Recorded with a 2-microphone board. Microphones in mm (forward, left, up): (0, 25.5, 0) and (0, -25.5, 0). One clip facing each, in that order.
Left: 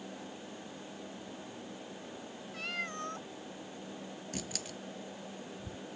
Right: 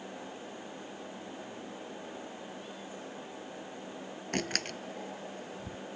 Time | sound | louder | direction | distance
2.5 | a cat meowing | left 5 dB | 75° left (ahead or behind) | ?
4.3 | a door slam | right 10 dB | 55° right (ahead or behind) | ?